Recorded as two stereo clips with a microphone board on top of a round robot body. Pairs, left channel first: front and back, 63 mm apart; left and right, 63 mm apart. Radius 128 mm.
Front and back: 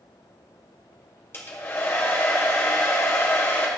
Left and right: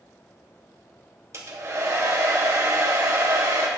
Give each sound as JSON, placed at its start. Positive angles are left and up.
{"t": 1.3, "sound": "a hair dryer", "azimuth_deg": -50, "distance_m": 1.8}